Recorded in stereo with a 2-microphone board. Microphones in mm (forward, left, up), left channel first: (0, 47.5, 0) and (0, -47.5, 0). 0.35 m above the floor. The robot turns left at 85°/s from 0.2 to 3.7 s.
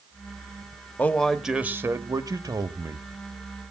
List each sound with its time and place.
1.0 s a man speaking: 30° left, 1.3 m; by 3.0 s 145° right, 1.3 m